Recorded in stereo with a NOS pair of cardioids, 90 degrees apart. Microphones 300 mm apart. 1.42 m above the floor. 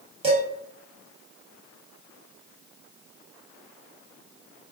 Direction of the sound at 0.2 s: 20° right.